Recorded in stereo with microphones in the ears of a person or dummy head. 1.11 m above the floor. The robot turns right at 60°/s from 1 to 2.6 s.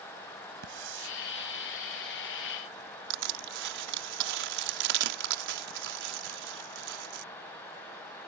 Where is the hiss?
75° right (ahead or behind); by 1.1 s 80° right.